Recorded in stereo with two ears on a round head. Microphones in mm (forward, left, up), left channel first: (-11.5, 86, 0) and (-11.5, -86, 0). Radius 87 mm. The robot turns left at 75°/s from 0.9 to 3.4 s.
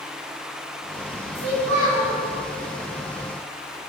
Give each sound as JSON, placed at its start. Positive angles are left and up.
{"t": 1.4, "sound": "a child speaking", "azimuth_deg": -85, "distance_m": 3.5}